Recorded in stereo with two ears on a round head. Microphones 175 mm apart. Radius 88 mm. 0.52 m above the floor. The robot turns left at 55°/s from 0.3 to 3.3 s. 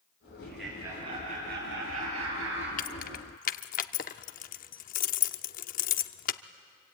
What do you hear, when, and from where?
0.4 s laughter: 10° left, 9.5 m; by 2.7 s 115° right, 9.5 m
2.8 s keys jangling: 45° left (ahead or behind), 0.6 m